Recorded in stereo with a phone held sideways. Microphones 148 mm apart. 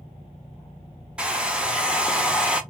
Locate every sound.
1.2 s a hair dryer: 5° right (ahead or behind), 0.5 m